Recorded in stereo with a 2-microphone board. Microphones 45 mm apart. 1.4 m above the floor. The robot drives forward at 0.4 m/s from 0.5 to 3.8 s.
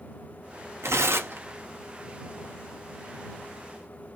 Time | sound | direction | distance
0.8 | tearing paper | 75° right (ahead or behind) | 0.6 m